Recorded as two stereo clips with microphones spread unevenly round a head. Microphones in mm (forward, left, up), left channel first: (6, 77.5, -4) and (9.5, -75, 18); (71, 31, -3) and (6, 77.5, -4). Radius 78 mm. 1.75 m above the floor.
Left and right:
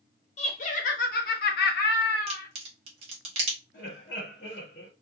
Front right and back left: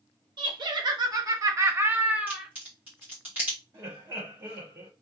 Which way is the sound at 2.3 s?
140° right.